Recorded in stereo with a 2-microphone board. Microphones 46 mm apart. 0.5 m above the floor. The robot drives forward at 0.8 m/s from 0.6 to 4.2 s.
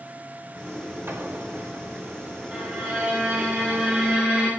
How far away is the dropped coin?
No dropped coin in this recording.